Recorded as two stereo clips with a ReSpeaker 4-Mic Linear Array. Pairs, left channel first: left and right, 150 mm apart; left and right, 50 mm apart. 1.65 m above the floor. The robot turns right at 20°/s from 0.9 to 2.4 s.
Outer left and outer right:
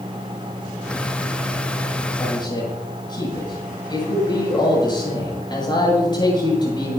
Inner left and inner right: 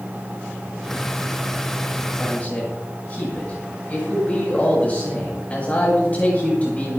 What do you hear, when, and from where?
2.2 s a man speaking: 25° left (ahead or behind), 8 m; by 7.0 s 30° left (ahead or behind), 8 m